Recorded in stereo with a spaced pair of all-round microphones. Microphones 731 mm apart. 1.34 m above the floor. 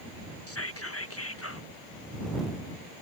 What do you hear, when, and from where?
0.5 s whispering: 20° left (ahead or behind)